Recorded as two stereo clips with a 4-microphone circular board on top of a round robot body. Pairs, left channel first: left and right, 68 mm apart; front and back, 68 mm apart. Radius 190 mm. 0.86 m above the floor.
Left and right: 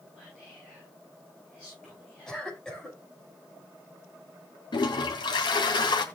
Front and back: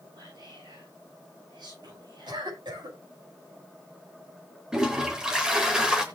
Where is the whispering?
170° left, 8.5 m.